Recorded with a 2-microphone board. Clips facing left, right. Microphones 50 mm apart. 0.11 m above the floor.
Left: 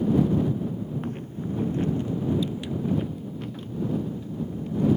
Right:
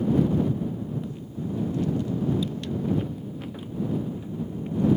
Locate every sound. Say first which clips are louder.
1.0 s footsteps: left 1 dB; 55° left (ahead or behind); by 4.9 s 30° right (ahead or behind)